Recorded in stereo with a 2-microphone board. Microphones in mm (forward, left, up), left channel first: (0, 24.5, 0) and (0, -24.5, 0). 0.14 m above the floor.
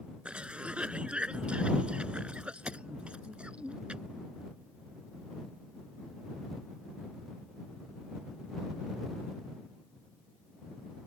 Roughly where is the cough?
Right.